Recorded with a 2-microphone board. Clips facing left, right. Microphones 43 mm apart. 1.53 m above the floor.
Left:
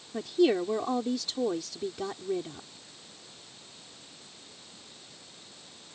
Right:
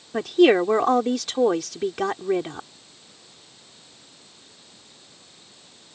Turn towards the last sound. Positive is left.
turn(degrees=-75)  # may be behind; listen again after turning